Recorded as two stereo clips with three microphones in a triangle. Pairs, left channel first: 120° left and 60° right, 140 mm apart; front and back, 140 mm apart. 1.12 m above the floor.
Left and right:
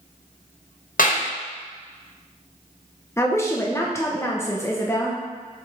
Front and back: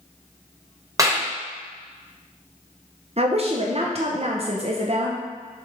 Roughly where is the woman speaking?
Behind.